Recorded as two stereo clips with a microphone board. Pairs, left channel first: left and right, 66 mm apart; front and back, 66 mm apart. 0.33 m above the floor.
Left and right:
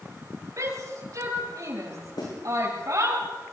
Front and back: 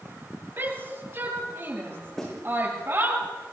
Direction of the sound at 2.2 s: 85° left.